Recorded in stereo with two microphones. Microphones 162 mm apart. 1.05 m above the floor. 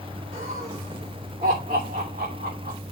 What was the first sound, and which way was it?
Laughter, 55° right (ahead or behind).